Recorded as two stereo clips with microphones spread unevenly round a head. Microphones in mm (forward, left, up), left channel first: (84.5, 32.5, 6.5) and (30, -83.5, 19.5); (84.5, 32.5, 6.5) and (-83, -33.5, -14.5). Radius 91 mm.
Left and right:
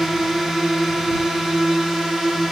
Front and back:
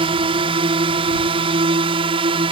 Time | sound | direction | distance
0.0 | a drone | 155° left | ?